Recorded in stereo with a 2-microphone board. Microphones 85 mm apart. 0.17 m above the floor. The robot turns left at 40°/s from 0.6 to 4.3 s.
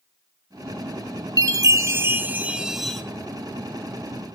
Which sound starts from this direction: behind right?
A chime, at 1.4 s.